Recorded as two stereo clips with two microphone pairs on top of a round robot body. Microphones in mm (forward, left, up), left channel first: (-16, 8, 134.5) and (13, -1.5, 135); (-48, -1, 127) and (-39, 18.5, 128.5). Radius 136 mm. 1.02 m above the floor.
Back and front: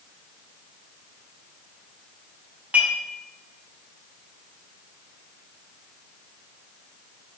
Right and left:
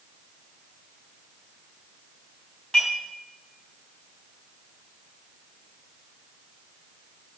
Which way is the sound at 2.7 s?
60° right.